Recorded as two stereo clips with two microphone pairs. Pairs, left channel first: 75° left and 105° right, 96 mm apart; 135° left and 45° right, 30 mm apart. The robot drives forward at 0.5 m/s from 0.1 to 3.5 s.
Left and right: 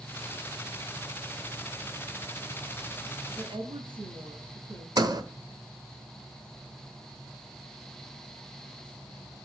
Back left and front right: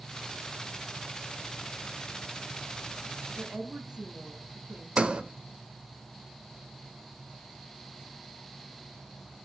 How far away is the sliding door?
About 1.2 m.